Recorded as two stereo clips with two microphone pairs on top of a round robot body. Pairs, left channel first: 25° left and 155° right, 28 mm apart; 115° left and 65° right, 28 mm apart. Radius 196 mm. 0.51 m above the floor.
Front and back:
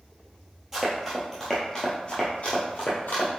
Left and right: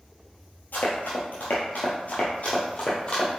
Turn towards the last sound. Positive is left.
turn(degrees=40)